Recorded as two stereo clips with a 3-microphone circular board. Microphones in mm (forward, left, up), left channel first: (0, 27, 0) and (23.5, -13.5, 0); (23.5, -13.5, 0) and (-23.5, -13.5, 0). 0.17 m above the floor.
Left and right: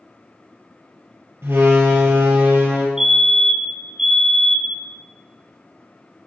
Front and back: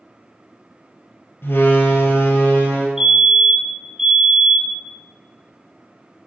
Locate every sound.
1.4 s a door slam: 35° right, 3 m
3.0 s a fire alarm: 115° right, 2 m